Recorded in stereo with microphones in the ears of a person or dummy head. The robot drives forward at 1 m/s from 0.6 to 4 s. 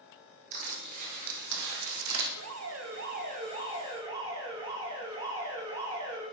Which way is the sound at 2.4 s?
75° right (ahead or behind).